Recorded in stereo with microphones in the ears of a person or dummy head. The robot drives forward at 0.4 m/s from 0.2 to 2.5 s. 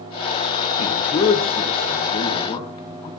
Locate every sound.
0.8 s a man speaking: 30° left (ahead or behind), 3 m; by 3.1 s 25° left (ahead or behind), 3.5 m